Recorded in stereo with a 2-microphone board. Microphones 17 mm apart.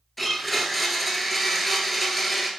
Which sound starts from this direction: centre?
A blender, at 0.2 s.